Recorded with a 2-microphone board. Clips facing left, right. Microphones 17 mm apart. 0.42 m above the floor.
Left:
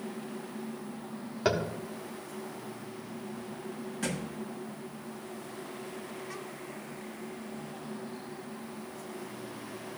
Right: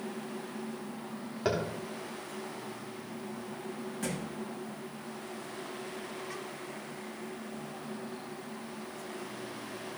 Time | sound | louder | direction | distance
1.4 | tapping | left 2 dB | 15° left (ahead or behind) | 1.1 m
4.0 | a thud | left 2 dB | 15° left (ahead or behind) | 1.2 m